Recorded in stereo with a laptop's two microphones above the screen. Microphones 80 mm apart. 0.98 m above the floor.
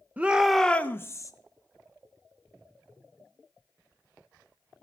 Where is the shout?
20° right (ahead or behind), 0.8 m; by 1.3 s 40° left (ahead or behind), 0.9 m.